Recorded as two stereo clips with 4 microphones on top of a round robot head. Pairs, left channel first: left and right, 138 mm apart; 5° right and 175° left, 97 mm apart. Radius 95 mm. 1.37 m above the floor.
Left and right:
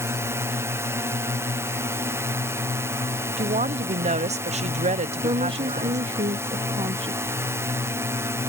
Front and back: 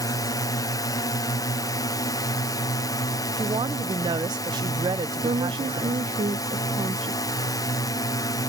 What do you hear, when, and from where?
0.0 s a drone: 25° right
3.4 s a woman speaking: 130° right
5.2 s a woman speaking: 145° right